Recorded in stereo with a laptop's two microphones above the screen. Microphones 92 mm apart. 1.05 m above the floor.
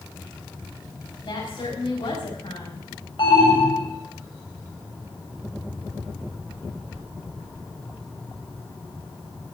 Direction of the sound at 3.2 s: 60° left (ahead or behind).